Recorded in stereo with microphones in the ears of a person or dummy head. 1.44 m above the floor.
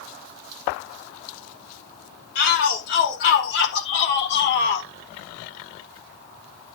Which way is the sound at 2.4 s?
65° left (ahead or behind).